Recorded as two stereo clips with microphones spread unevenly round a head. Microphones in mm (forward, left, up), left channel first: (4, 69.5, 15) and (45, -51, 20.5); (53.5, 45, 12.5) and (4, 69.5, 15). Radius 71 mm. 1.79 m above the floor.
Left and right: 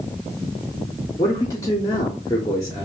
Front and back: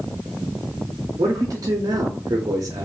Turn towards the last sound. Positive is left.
turn(degrees=175)